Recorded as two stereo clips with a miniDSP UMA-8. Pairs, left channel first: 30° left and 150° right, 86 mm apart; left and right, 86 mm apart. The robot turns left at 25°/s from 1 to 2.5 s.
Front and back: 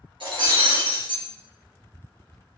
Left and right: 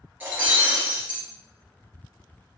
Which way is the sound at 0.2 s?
160° right.